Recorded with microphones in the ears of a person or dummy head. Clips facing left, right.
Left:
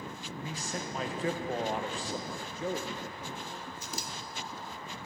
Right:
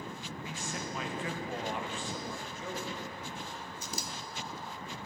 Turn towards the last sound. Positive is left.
turn(degrees=-75)  # may be behind; listen again after turning